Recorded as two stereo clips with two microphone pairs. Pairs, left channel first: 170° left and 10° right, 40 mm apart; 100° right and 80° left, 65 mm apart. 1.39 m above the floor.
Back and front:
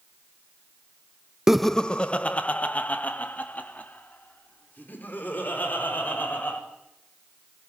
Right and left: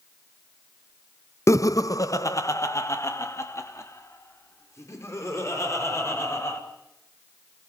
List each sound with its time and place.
1.5 s laughter: 85° right, 0.5 m; by 6.6 s 150° right, 7.5 m